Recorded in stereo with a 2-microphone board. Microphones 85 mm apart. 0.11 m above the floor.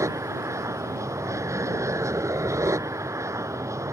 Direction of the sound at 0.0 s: 35° right (ahead or behind).